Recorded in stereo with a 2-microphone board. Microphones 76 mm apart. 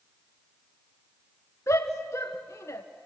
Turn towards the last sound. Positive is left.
turn(degrees=40)  # may be behind; listen again after turning